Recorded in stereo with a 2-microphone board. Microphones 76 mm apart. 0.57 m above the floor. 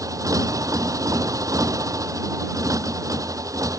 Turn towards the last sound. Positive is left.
turn(degrees=-50)  # may be behind; listen again after turning